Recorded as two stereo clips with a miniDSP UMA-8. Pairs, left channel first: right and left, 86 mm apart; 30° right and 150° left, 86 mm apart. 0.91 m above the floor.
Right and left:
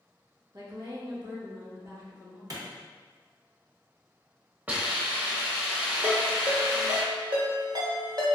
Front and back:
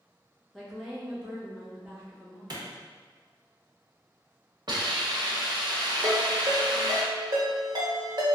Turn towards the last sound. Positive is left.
turn(degrees=120)